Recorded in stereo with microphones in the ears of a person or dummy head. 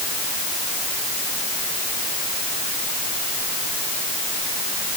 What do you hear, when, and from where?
Only background noise.